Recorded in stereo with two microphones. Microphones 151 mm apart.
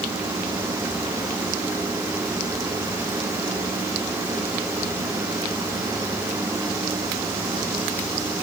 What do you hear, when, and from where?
Only background noise.